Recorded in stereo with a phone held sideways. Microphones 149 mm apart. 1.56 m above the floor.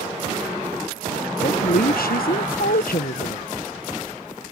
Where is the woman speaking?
85° left.